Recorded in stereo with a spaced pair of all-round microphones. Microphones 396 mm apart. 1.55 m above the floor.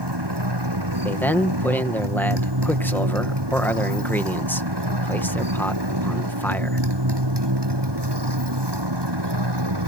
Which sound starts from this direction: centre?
A man speaking, at 1.1 s.